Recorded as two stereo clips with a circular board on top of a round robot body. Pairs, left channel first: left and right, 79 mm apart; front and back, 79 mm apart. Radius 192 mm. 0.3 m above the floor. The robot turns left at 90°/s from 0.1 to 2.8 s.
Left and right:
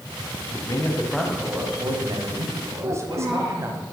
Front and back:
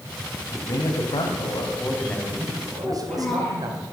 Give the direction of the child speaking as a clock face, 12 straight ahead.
2 o'clock.